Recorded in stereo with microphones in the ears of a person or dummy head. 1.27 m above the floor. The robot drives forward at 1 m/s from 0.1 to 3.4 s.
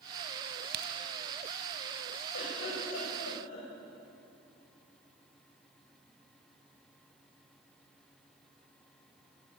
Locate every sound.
0.7 s a crack: 60° right (ahead or behind), 2.5 m; by 0.9 s 65° right (ahead or behind), 2.5 m
2.3 s a giggle: 80° left, 7.5 m; by 3.7 s 70° left (ahead or behind), 8 m